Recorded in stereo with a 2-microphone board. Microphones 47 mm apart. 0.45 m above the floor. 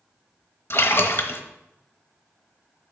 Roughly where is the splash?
Left.